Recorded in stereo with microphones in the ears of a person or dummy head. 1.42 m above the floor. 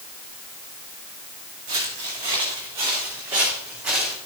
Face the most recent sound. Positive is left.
turn(degrees=-5)  # may be behind; listen again after turning